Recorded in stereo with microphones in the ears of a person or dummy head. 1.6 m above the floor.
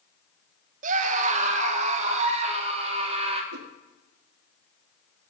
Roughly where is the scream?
Right.